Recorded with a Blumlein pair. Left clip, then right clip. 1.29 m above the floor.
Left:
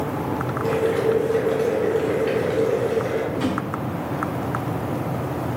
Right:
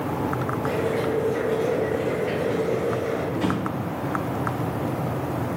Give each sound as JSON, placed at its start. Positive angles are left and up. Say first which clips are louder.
{"t": 0.6, "sound": "boiling", "louder": "left 5 dB", "azimuth_deg": 60, "distance_m": 1.1}
{"t": 3.3, "sound": "a drawer", "louder": "left 1 dB", "azimuth_deg": 65, "distance_m": 1.5}